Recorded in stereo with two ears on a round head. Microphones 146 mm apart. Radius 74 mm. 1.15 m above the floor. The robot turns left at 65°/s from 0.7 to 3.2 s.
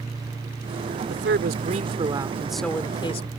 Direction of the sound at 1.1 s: 85° right.